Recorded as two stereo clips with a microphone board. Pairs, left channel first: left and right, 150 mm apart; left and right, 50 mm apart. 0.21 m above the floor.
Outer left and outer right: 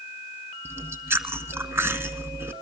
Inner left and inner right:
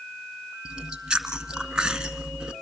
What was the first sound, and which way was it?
Chewing, 15° right (ahead or behind).